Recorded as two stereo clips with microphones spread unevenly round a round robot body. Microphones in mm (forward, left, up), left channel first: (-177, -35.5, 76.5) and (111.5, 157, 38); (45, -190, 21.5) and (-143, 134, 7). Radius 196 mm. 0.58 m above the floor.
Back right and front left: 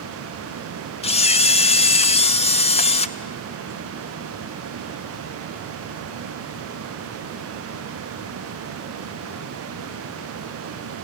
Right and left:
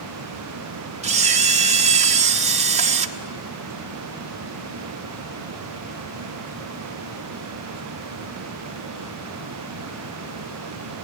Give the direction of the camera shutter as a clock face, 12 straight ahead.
7 o'clock.